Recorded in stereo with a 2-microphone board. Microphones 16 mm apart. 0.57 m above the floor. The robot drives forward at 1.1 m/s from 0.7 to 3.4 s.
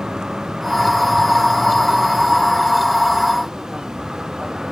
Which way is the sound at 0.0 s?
50° right (ahead or behind).